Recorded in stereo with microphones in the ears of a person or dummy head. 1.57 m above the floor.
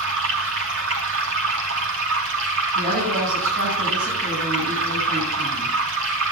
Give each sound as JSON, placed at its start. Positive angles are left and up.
{"t": 0.0, "sound": "running water", "side_deg": -80, "distance_m": 3.0}
{"t": 2.8, "sound": "a woman speaking", "side_deg": -50, "distance_m": 9.5}